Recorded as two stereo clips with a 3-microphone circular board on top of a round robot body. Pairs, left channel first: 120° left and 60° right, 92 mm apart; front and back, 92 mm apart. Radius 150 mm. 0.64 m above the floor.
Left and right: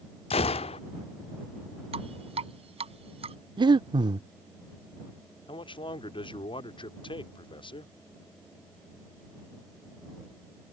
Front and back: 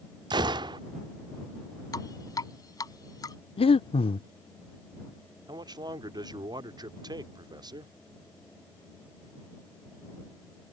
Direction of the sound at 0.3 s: 135° left.